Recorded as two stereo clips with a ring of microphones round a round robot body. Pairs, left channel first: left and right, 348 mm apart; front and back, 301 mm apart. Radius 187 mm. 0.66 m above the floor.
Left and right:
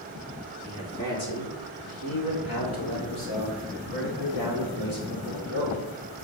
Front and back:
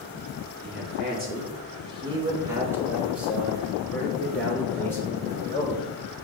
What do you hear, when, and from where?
0.6 s a man speaking: 130° left, 2.5 m; by 5.8 s 80° left, 5 m